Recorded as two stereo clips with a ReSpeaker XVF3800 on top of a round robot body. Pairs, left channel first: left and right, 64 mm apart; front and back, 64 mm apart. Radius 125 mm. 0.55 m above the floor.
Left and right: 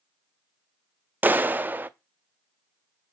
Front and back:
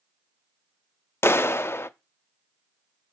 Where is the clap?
35° right, 0.5 m.